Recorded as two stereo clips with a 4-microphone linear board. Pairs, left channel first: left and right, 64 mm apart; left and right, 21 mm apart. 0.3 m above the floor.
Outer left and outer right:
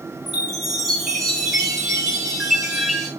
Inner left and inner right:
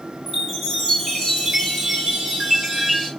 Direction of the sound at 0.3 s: Centre (ahead or behind).